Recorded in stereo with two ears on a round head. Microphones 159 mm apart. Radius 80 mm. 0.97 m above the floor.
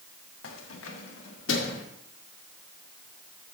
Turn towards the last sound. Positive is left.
turn(degrees=70)  # may be behind; listen again after turning